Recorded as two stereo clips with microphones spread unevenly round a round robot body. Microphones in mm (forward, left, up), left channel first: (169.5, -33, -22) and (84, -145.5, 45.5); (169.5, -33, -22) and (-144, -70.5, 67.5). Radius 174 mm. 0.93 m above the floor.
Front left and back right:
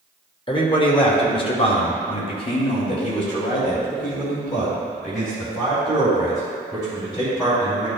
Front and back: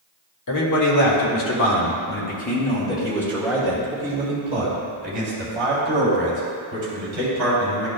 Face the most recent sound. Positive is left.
turn(degrees=130)